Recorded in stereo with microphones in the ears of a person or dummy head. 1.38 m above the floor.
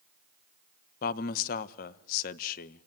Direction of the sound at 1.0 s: 50° left (ahead or behind).